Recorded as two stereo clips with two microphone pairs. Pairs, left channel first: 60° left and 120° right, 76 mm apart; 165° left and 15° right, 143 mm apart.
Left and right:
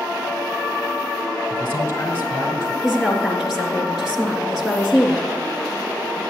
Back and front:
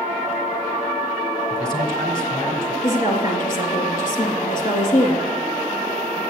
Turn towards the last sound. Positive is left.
turn(degrees=155)